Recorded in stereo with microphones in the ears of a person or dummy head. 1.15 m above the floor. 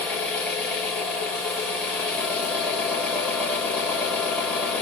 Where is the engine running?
5° left (ahead or behind), 1.7 m.